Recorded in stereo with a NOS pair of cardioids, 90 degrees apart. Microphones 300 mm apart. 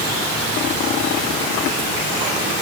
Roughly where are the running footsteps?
No running footsteps in this recording.